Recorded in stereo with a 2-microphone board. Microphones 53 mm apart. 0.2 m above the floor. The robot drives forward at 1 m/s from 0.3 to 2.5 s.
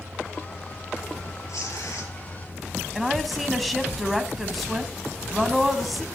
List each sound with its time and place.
1.5 s tearing paper: 75° left (ahead or behind), 2.5 m
3.0 s a woman speaking: centre (ahead or behind), 1.2 m